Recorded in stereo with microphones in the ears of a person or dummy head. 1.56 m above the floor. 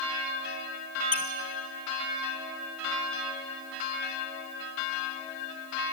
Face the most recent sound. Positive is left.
turn(degrees=10)  # may be behind; listen again after turning